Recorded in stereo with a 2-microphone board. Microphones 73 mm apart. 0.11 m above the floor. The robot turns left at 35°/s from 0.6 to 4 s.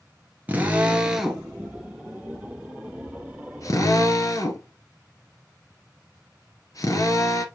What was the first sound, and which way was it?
A drill, 20° right (ahead or behind).